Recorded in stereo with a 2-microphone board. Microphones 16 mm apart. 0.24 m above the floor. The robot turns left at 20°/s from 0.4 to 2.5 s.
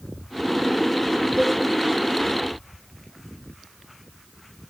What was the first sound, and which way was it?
A cowbell, 5° left (ahead or behind).